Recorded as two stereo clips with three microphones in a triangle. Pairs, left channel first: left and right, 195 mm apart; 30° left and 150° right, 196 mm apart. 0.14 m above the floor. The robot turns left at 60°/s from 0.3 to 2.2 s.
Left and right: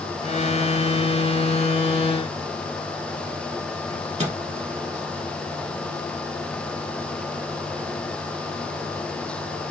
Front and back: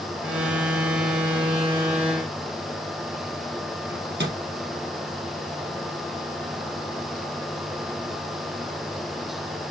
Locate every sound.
3.9 s a microwave: 145° right, 2.5 m